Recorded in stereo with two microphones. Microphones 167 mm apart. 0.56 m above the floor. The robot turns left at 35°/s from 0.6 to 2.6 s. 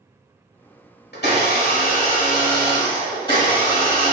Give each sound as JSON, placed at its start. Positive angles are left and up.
{"t": 1.1, "sound": "a blender", "azimuth_deg": 80, "distance_m": 1.0}